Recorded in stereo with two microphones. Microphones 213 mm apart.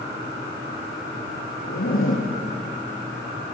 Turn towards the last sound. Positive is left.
turn(degrees=75)  # may be behind; listen again after turning